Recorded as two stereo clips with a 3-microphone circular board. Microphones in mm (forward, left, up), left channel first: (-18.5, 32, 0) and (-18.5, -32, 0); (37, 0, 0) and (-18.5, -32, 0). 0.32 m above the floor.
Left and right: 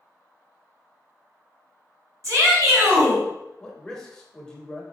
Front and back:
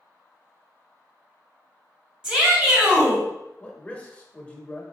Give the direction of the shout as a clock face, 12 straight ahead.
2 o'clock.